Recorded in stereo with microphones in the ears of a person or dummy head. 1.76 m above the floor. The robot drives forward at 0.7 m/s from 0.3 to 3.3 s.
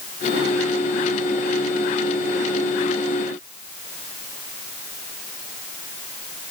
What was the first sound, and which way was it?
Only background noise.